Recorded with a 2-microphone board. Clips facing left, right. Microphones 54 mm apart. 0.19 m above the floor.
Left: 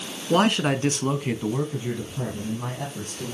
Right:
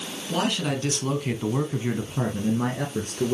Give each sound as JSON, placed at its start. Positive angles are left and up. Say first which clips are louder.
{"t": 0.3, "sound": "a man speaking", "louder": "left 6 dB", "side_deg": 50, "distance_m": 1.9}